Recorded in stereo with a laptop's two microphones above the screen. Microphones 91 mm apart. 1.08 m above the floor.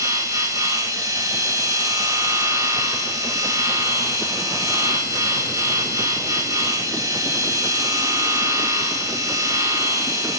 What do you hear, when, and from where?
0.0 s a machine running: 40° right (ahead or behind), 0.8 m